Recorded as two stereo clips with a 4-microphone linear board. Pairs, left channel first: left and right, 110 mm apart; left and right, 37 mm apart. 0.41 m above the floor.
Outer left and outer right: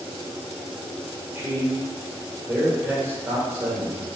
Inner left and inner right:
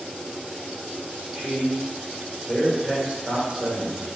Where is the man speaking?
25° right (ahead or behind), 1.3 m.